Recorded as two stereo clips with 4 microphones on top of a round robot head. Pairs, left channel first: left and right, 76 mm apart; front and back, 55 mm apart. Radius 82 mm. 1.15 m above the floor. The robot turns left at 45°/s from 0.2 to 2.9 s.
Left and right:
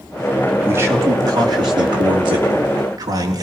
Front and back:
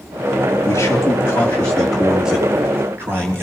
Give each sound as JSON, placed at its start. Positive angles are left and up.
{"t": 0.7, "sound": "a man speaking", "azimuth_deg": -30, "distance_m": 3.5}